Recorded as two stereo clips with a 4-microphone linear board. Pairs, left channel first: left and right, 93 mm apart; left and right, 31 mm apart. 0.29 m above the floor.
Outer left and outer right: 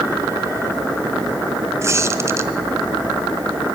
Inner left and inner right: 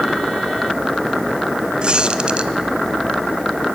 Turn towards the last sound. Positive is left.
turn(degrees=-30)  # may be behind; listen again after turning